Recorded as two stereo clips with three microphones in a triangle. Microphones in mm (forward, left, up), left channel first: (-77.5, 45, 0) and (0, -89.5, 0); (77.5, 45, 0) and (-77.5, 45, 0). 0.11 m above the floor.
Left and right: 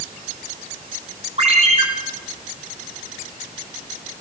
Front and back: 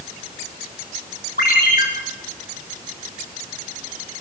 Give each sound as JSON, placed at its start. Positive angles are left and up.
{"t": 1.4, "sound": "a ringtone", "azimuth_deg": -15, "distance_m": 6.0}